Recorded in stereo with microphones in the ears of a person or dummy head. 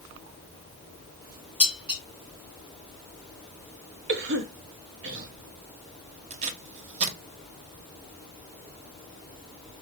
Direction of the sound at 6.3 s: 40° right (ahead or behind).